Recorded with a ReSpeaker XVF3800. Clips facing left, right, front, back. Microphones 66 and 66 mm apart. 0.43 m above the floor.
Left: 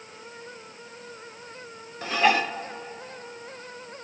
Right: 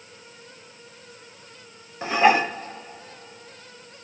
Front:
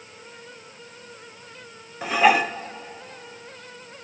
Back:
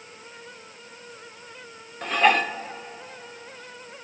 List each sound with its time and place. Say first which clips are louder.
2.0 s dishes clattering: right 4 dB, front 2 dB; 70° right, 0.6 m